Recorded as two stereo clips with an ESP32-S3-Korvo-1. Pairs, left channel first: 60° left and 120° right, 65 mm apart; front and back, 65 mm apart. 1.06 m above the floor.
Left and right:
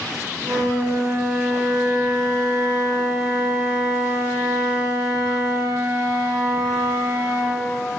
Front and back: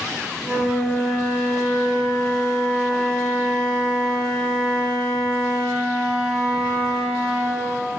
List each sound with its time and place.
0.4 s a flute: 95° right, 1.6 m